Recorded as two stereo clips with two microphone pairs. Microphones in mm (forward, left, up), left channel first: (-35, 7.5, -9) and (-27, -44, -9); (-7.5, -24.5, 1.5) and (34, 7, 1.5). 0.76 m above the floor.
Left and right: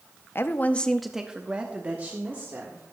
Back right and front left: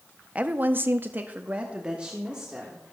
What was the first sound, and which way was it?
A woman speaking, 90° left.